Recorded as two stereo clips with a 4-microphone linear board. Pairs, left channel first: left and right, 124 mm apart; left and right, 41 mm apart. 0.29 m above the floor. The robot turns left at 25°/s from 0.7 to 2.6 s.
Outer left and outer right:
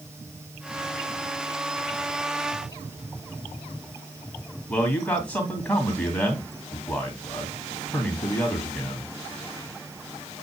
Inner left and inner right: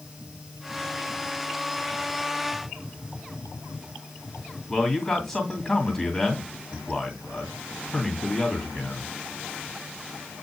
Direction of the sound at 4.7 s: 10° left (ahead or behind).